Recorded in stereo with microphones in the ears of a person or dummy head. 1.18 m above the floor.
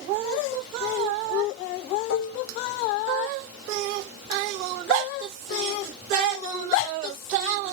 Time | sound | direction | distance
2.1 | dishes clattering | 60° left (ahead or behind) | 0.7 m